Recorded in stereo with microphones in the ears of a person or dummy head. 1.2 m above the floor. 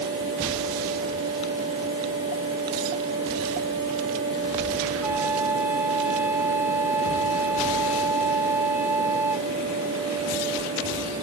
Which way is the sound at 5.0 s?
10° right (ahead or behind).